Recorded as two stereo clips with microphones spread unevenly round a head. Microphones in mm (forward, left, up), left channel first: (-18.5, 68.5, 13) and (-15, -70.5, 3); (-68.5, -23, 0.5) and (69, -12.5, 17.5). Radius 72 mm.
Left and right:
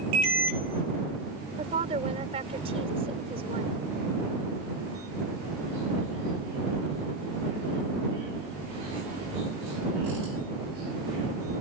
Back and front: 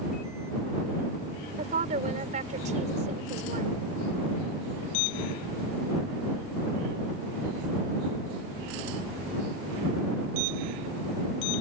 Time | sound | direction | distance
1.6 | a woman speaking | 35° right | ?